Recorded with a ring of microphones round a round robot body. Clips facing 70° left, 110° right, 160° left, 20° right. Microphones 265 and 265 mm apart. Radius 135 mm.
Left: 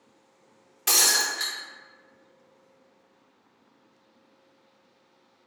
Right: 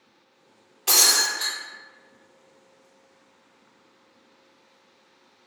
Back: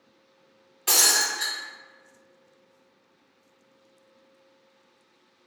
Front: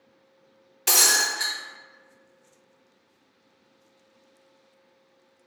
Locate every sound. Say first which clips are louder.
0.9 s breaking glass: right 2 dB, front 1 dB; 15° left, 1.4 m